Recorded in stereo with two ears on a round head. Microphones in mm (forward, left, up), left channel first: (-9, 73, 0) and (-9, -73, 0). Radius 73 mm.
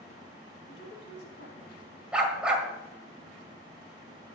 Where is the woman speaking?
70° left (ahead or behind), 2.5 m.